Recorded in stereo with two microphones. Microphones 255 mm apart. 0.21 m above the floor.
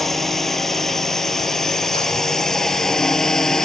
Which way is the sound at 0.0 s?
Centre (ahead or behind).